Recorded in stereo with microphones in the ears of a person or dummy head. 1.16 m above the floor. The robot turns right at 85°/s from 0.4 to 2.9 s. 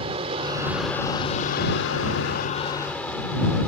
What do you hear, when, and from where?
0.0 s an aircraft: 40° right; by 3.7 s 175° left